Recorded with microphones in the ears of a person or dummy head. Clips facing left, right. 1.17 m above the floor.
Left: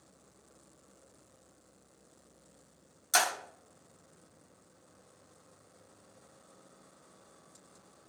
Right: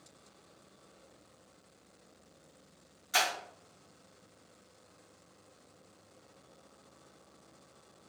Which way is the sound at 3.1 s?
70° left (ahead or behind).